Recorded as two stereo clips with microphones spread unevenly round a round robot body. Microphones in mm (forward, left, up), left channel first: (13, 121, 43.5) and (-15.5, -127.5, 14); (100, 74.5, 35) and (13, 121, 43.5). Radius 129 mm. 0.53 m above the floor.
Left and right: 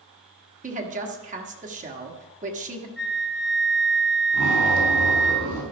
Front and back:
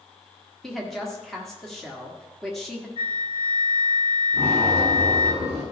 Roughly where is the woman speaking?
Right.